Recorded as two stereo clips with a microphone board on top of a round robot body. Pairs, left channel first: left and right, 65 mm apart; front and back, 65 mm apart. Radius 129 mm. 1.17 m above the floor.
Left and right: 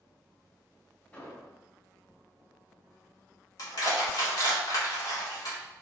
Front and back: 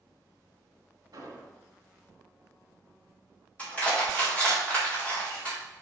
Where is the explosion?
145° left, 3.5 m.